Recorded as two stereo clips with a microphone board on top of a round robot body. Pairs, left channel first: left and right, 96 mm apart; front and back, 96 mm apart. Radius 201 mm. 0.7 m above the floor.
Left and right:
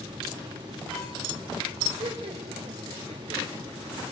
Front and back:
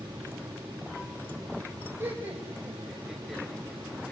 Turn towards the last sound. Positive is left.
turn(degrees=-75)